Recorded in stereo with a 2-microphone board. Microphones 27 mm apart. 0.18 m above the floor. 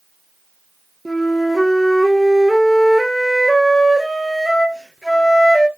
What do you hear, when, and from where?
1.1 s a flute: 5° right (ahead or behind), 1.4 m